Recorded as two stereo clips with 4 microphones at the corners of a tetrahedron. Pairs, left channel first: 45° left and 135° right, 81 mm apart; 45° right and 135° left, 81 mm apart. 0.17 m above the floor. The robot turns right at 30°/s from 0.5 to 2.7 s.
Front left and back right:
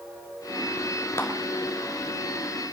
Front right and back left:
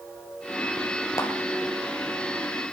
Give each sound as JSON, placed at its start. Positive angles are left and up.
{"t": 1.2, "sound": "a clap", "azimuth_deg": -5, "distance_m": 2.5}